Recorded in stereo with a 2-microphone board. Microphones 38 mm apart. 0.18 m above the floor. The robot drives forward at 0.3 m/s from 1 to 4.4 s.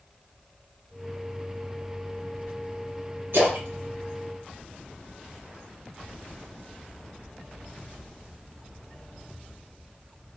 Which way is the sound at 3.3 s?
65° right (ahead or behind).